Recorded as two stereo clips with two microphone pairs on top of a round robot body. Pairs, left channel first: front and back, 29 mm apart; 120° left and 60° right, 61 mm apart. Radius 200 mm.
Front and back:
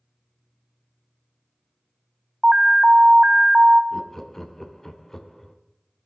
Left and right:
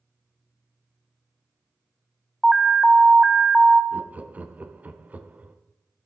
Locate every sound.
2.4 s an alarm: 150° right, 0.7 m
3.9 s laughter: 35° right, 0.9 m